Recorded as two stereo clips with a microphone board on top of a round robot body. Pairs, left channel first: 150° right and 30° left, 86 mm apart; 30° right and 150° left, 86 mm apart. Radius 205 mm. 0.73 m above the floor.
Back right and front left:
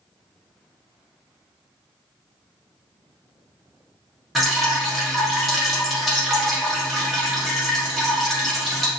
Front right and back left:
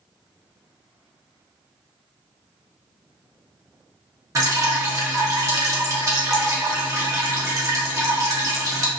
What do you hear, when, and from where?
4.3 s dripping: 120° left, 1.1 m